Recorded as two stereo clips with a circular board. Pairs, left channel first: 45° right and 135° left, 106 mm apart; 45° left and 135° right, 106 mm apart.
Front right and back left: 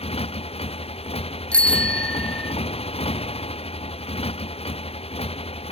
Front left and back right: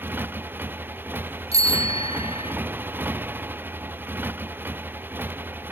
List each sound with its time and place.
0.0 s a motorcycle: 65° right
1.5 s a bicycle bell: 35° left